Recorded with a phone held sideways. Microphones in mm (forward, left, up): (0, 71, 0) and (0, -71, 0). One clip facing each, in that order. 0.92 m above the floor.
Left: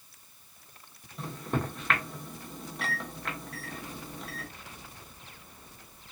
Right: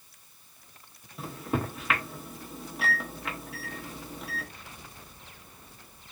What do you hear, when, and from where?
1.2 s a microwave: 5° right (ahead or behind), 0.9 m